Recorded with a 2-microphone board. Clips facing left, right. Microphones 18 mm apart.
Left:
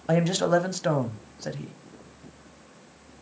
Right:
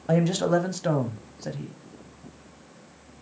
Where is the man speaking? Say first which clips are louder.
Even; 15° left (ahead or behind), 1.1 m.